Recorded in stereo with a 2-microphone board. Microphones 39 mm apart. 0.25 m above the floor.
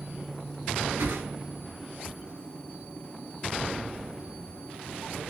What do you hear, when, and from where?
1.0 s a whoosh: 85° right, 0.8 m